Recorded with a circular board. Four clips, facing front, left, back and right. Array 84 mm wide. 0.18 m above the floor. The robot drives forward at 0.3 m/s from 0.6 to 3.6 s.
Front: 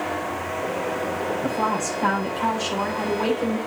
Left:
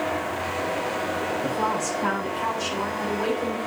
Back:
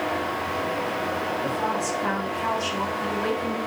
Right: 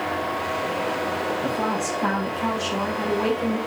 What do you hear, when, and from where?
1.4 s a woman speaking: 15° right, 7.5 m; by 3.6 s 20° right, 6.5 m